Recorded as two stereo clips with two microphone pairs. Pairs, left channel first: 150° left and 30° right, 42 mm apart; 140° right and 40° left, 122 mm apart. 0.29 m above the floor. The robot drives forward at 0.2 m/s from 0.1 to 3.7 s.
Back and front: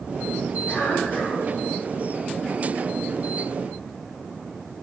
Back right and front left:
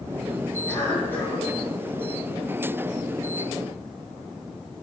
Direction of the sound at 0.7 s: 150° left.